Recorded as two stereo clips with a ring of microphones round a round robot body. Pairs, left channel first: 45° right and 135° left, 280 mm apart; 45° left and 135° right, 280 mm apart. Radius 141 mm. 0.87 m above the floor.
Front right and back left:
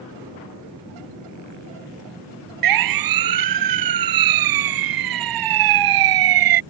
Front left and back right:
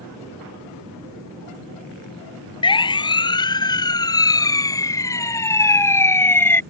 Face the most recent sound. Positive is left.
turn(degrees=130)